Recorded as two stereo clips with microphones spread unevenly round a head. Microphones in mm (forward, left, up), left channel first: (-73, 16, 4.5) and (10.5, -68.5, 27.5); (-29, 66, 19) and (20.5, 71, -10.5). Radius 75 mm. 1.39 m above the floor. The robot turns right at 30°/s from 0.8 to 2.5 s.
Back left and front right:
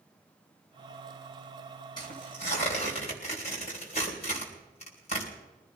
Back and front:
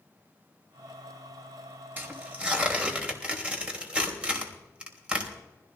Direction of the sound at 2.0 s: 65° left.